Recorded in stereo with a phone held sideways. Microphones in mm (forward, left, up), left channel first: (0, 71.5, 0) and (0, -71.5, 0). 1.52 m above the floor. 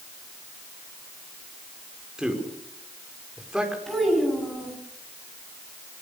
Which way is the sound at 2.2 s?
5° right (ahead or behind).